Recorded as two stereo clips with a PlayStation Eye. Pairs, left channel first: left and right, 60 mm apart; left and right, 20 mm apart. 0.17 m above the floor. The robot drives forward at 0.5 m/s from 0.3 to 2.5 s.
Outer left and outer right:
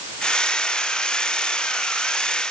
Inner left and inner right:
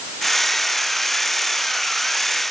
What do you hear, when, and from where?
Only background noise.